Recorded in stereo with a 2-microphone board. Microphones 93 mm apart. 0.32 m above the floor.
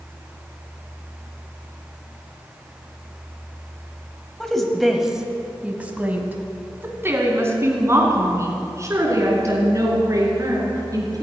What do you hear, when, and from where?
4.4 s a woman speaking: 5° left (ahead or behind), 1.8 m; by 11.2 s 40° right (ahead or behind), 5 m